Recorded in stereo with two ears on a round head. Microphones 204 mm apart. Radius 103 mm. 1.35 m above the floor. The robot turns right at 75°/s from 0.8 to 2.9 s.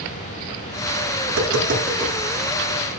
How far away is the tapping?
About 9 m.